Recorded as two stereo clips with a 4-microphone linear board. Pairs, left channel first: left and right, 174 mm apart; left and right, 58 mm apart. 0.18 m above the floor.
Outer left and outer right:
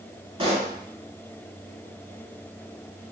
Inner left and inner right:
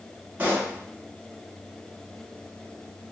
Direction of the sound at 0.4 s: 30° right (ahead or behind).